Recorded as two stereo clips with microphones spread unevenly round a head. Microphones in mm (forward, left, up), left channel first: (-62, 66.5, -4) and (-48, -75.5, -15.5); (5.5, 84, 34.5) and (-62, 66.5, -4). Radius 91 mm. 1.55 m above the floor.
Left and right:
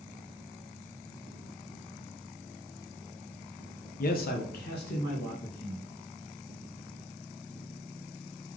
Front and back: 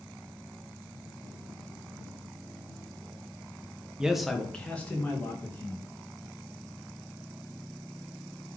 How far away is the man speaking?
About 0.8 m.